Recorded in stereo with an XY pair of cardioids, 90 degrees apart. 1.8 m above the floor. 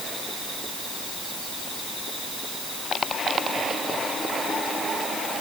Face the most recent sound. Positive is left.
No sound to turn to.